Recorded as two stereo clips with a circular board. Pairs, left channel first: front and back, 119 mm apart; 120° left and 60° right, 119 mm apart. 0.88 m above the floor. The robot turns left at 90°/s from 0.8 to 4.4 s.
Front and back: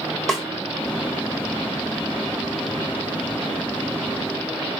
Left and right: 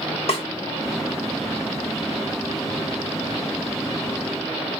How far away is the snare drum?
About 0.9 m.